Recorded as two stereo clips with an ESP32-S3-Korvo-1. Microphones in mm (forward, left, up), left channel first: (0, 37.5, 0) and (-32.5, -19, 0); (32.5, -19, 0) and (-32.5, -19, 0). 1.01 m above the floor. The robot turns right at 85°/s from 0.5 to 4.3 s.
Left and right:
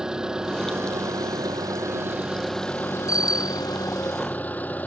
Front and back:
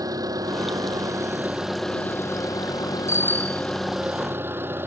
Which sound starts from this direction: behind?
An engine running, at 0.0 s.